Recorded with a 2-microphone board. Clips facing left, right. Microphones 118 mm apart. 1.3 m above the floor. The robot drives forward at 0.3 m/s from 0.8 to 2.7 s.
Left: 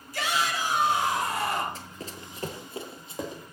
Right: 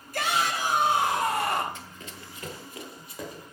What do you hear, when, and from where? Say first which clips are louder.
0.1 s a shout: right 1 dB; 55° right (ahead or behind), 3 m; by 1.6 s 60° right (ahead or behind), 3 m
1.8 s running footsteps: left 3 dB; 35° left (ahead or behind), 1.5 m; by 3.4 s 20° left (ahead or behind), 2.5 m